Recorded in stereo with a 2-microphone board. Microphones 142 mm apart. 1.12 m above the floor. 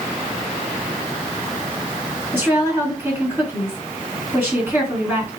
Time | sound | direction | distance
2.3 | a woman speaking | 15° right (ahead or behind) | 2.5 m